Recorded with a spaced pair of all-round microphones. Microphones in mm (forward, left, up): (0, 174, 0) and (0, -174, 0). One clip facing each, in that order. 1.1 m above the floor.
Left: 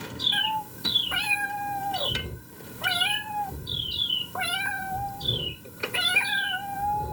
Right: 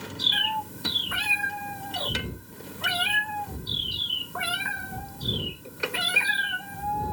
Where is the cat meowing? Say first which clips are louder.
Even; 25° right (ahead or behind), 0.7 m.